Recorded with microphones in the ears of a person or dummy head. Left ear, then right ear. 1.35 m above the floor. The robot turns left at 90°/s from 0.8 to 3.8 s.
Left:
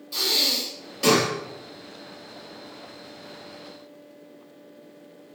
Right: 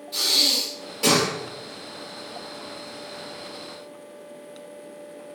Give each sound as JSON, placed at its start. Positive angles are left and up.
{"t": 0.1, "sound": "breathing", "azimuth_deg": 25, "distance_m": 1.3}